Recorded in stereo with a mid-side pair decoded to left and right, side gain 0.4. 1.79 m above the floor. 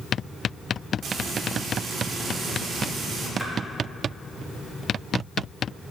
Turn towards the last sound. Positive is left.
turn(degrees=-5)